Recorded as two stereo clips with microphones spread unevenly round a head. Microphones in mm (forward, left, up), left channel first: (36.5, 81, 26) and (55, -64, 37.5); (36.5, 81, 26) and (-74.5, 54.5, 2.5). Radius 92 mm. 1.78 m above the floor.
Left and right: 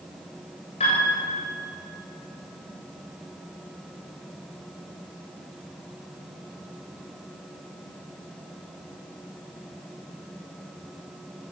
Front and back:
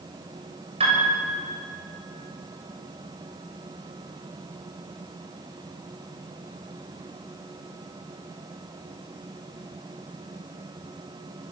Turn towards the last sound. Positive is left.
turn(degrees=160)